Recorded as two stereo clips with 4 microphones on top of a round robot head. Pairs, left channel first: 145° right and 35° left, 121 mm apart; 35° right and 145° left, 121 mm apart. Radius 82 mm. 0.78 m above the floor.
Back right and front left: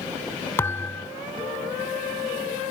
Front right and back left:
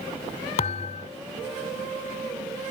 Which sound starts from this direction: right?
A thud, at 0.6 s.